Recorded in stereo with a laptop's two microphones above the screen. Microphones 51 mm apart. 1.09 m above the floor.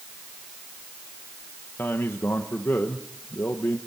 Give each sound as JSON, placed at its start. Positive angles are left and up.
{"t": 1.8, "sound": "a man speaking", "side_deg": 50, "distance_m": 1.2}